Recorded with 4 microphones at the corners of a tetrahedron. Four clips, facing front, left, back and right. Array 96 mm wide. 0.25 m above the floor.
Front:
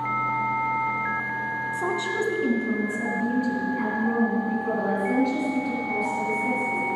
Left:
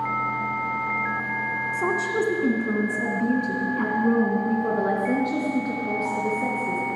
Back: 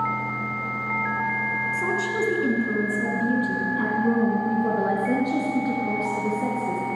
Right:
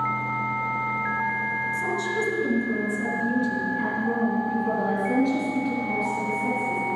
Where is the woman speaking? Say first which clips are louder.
Left 2 dB, front 1 dB; 75° left, 2 m; by 6.8 s 140° left, 4.5 m.